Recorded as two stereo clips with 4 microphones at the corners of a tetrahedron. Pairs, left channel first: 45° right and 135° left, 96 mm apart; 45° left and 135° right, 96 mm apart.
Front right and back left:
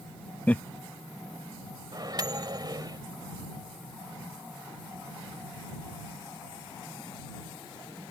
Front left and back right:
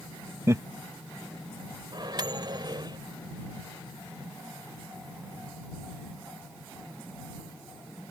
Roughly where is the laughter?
Right.